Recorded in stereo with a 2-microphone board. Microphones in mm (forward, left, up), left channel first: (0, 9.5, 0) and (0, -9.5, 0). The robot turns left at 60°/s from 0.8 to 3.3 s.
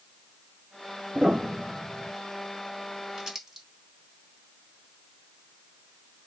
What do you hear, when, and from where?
1.1 s a piano: 105° right, 0.6 m; by 2.1 s 165° right, 0.6 m
3.2 s crumpling: 25° right (ahead or behind), 1.5 m; by 3.7 s 15° right (ahead or behind), 1.5 m